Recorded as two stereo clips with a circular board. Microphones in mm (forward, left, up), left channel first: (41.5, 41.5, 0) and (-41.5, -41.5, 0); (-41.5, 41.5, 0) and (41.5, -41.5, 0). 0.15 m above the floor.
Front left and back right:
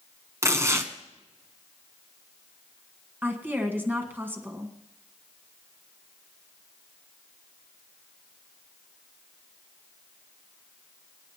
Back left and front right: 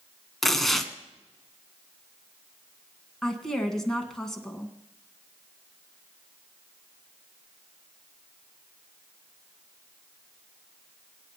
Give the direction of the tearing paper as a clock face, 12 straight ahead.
5 o'clock.